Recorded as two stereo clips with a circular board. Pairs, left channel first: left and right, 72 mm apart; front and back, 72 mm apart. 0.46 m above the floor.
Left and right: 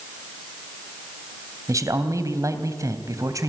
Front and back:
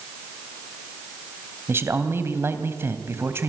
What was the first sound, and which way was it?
A man speaking, 125° right.